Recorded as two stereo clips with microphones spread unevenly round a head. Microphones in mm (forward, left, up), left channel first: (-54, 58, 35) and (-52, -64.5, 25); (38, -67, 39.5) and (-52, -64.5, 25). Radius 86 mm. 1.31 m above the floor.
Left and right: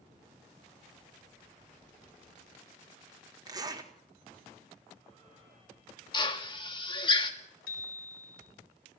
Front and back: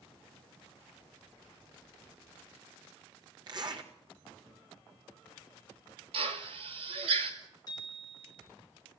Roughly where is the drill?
Behind left.